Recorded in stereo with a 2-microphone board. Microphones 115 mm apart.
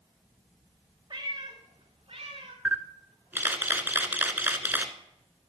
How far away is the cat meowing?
About 2.5 m.